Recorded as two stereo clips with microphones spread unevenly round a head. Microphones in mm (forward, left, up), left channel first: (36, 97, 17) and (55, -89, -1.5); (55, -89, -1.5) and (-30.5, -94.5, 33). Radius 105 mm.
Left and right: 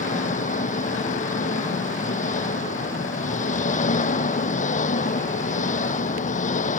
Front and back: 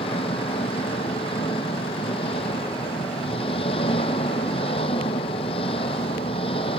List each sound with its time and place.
0.0 s an engine running: 45° left